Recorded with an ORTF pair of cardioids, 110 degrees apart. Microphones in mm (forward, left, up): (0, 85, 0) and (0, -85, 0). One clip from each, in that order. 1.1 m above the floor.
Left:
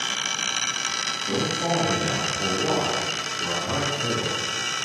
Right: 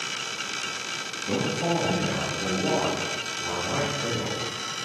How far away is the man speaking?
About 1.5 m.